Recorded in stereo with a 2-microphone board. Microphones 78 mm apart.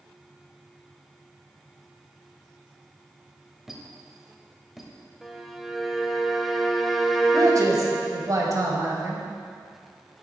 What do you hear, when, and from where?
3.7 s a squeak: 5° right (ahead or behind), 1.1 m
5.2 s a violin: centre (ahead or behind), 0.7 m
7.3 s a man speaking: 45° right (ahead or behind), 1.7 m